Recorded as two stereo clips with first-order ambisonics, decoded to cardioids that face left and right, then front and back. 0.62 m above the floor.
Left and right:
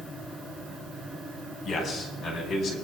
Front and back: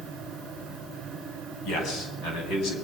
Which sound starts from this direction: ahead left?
A man speaking, at 1.6 s.